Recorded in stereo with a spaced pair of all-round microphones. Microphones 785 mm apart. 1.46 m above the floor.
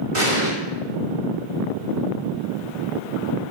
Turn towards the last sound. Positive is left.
turn(degrees=-40)  # may be behind; listen again after turning